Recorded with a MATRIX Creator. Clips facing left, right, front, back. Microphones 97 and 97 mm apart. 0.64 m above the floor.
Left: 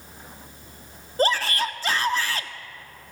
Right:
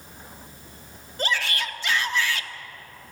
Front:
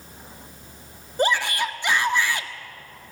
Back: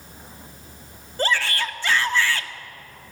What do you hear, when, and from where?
1.2 s a shout: 65° left, 1.4 m